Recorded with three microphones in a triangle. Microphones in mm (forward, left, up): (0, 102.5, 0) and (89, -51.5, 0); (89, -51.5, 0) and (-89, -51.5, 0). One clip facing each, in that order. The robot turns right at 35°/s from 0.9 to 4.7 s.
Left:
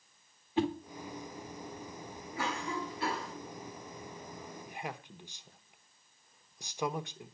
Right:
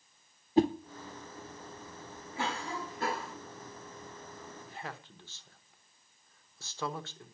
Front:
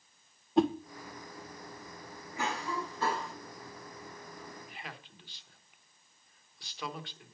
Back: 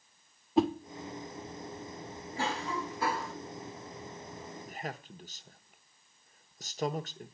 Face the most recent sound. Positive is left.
turn(degrees=-175)